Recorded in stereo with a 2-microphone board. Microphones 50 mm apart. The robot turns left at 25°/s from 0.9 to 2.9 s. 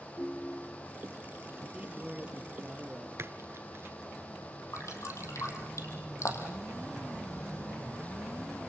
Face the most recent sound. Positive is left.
turn(degrees=75)  # may be behind; listen again after turning